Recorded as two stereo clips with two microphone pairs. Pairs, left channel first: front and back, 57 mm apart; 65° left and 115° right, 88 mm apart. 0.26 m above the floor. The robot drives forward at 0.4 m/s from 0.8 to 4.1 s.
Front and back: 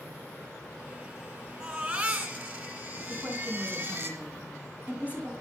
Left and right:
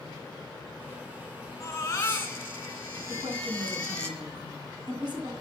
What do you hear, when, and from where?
1.6 s a baby crying: 120° left, 1.8 m; by 4.1 s 140° left, 2.5 m
3.1 s a woman speaking: 115° right, 3 m; by 5.3 s 125° right, 3 m